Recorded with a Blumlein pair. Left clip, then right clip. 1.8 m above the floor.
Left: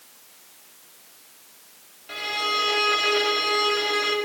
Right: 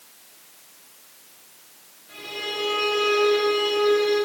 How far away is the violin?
About 5 m.